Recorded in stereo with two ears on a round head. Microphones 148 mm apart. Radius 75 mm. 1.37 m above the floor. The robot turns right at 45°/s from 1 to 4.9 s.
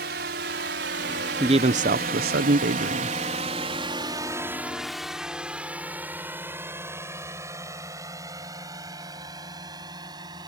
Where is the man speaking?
150° right; by 3.1 s 70° right.